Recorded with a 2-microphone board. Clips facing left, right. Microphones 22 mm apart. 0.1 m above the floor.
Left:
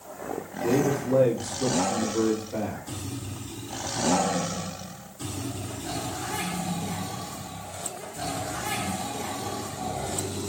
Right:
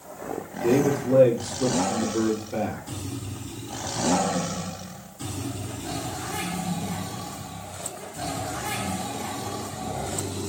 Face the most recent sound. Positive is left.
turn(degrees=-35)  # may be behind; listen again after turning